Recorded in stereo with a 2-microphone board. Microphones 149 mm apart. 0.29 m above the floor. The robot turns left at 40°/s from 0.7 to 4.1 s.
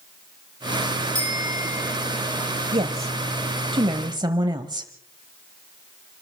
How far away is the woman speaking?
About 1.1 m.